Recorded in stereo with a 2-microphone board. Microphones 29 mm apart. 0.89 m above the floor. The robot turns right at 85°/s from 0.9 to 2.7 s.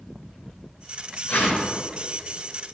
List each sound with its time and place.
1.3 s a whoosh: 80° left, 3.5 m; by 1.7 s 115° left, 3.5 m